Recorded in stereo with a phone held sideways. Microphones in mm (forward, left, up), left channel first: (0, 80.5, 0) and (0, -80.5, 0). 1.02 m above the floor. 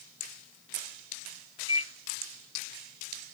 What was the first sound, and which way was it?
A microwave, 35° right (ahead or behind).